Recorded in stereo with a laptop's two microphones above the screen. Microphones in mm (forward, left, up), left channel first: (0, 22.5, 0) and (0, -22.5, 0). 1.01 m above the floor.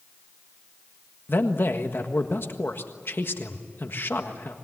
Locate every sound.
1.3 s a man speaking: 50° left (ahead or behind), 1.5 m